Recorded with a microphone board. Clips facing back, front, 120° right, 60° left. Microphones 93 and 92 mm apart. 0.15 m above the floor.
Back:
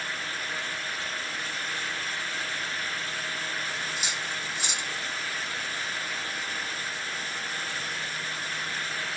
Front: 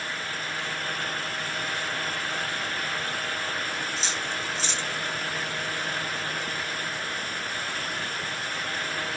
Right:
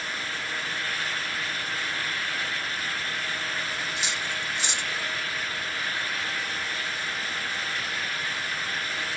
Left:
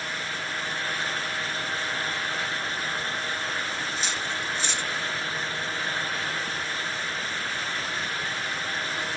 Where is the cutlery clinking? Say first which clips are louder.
Front 3 dB, left 1 dB; 135° right, 0.6 m.